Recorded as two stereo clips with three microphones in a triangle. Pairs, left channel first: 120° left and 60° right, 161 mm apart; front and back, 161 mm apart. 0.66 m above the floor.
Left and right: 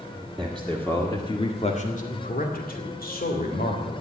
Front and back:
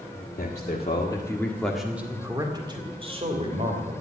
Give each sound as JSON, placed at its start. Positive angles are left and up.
{"t": 0.4, "sound": "a man speaking", "azimuth_deg": 30, "distance_m": 2.0}